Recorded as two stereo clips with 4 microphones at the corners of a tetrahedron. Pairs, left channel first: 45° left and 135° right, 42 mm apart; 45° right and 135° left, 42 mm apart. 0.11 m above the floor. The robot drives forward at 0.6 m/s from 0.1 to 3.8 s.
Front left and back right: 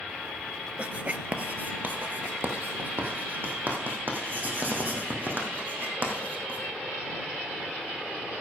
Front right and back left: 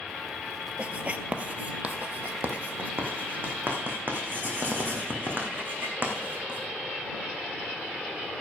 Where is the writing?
Straight behind, 0.6 m.